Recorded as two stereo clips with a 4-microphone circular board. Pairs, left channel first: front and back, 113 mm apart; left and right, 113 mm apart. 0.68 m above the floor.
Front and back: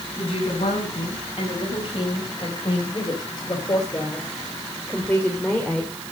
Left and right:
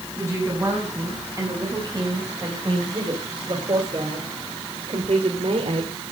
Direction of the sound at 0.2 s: 25° right.